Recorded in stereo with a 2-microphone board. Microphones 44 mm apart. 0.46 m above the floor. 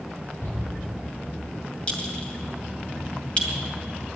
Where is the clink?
25° left (ahead or behind), 2 m.